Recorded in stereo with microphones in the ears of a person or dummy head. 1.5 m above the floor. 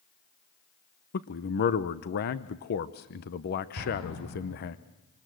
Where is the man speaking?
50° left (ahead or behind), 0.8 m.